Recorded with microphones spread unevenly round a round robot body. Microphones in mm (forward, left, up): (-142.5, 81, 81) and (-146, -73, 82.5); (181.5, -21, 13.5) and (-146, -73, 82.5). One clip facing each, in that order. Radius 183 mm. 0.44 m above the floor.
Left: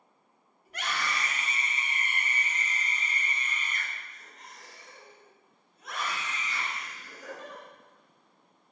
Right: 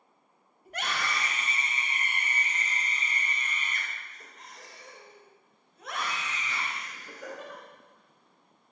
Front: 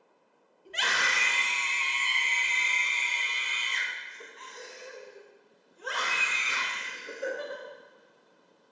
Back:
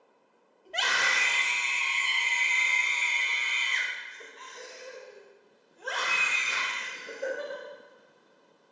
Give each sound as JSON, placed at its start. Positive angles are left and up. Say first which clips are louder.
{"t": 0.7, "sound": "a scream", "louder": "right 1 dB, back 1 dB", "azimuth_deg": -50, "distance_m": 3.5}